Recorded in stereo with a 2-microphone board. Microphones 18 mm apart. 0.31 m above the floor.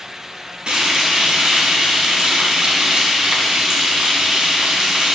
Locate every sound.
0.7 s frying: 60° right (ahead or behind), 2 m